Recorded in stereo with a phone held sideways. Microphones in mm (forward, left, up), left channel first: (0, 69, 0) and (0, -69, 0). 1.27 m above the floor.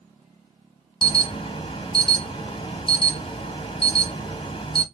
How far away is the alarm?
About 0.8 m.